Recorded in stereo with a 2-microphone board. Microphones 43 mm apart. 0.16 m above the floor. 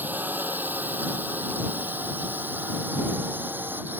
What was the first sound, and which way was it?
A drone, 45° right (ahead or behind).